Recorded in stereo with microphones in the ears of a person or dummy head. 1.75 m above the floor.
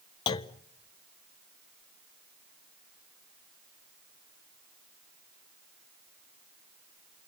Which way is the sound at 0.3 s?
25° left (ahead or behind).